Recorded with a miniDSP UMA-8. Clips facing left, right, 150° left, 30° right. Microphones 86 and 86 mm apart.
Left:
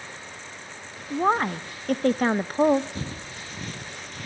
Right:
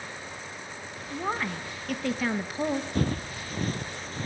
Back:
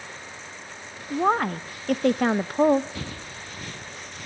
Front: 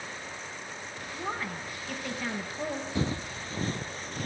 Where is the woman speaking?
130° left, 0.7 m.